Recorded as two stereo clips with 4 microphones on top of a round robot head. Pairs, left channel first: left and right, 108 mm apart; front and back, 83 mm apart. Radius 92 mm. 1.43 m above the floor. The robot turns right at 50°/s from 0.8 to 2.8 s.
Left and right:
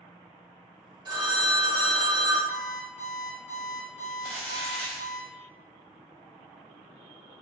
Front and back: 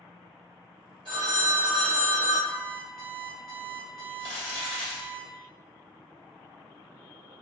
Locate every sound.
1.1 s a phone ringing: 120° right, 0.8 m; by 2.4 s 55° right, 0.8 m
2.5 s an alarm clock: 70° left, 0.7 m; by 5.2 s 85° left, 0.7 m
4.2 s crumpling: straight ahead, 0.9 m